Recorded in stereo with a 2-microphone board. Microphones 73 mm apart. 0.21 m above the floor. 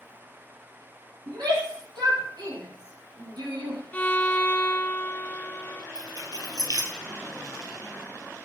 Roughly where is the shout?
Right.